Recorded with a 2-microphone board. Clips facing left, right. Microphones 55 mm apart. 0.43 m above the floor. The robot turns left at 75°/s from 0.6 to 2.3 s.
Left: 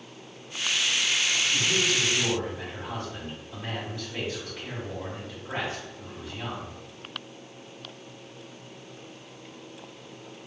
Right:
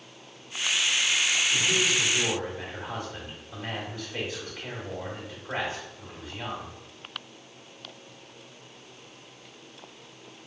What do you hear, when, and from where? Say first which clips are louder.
1.5 s a man speaking: even; 100° right, 1.5 m; by 6.7 s 160° right, 1.5 m